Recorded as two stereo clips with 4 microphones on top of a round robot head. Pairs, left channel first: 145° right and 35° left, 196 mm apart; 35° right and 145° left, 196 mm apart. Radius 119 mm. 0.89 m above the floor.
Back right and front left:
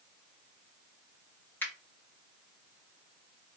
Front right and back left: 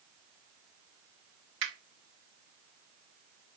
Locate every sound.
1.6 s a finger snap: 130° left, 1.2 m